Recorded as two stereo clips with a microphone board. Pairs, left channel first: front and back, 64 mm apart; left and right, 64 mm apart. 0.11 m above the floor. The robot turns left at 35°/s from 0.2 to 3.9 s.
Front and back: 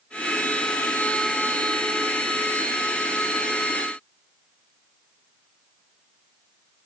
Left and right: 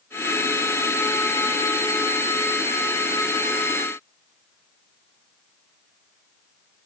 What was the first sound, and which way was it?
Only background noise.